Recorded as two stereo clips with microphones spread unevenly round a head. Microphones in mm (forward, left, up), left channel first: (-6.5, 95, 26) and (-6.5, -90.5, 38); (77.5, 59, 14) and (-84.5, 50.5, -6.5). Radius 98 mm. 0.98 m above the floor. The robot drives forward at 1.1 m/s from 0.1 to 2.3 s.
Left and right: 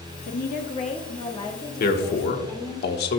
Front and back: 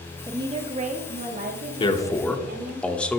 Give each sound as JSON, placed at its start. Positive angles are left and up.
{"t": 0.3, "sound": "a woman speaking", "azimuth_deg": 115, "distance_m": 0.9}
{"t": 1.8, "sound": "a man speaking", "azimuth_deg": 65, "distance_m": 1.4}